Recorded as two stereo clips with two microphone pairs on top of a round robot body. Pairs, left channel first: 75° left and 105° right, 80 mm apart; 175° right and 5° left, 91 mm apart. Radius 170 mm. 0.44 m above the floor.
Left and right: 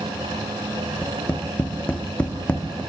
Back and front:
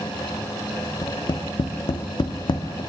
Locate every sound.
1.0 s tapping: 150° left, 0.5 m